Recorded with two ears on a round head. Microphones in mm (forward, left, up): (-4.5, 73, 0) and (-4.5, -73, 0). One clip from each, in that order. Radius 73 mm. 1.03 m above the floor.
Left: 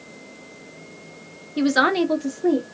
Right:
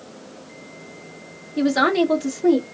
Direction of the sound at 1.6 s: 30° left (ahead or behind).